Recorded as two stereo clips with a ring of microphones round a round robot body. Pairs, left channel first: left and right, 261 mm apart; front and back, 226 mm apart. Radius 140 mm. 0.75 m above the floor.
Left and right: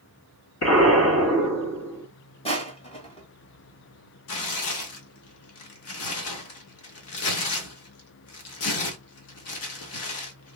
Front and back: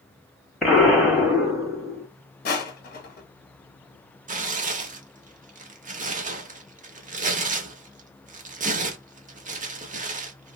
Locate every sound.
0.6 s an explosion: 90° left, 1.7 m
2.5 s crushing: 30° left, 1.2 m
4.3 s tearing paper: 125° left, 0.8 m